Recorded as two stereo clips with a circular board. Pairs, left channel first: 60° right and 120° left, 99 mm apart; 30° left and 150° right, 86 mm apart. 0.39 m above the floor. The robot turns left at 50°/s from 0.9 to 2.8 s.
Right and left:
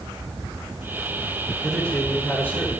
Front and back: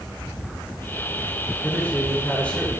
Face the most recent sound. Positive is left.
turn(degrees=-45)